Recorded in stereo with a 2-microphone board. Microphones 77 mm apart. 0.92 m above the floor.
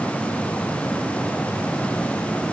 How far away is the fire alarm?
I don't hear a fire alarm.